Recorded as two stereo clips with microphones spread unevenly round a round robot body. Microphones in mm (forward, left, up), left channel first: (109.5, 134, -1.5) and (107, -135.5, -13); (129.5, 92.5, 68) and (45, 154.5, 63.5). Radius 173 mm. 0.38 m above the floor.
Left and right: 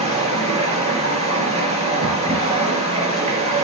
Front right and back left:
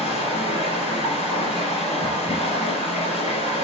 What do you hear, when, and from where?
0.0 s running water: 25° right, 3 m